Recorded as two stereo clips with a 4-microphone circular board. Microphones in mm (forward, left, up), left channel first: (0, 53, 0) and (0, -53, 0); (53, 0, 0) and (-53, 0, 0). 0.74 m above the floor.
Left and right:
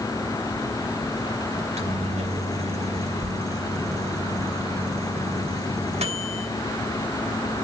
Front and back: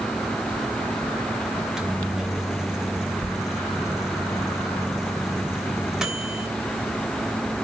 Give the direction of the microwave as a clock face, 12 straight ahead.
3 o'clock.